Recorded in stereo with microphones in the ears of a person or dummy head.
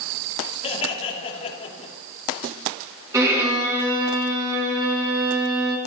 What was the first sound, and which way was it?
Laughter, 30° left (ahead or behind).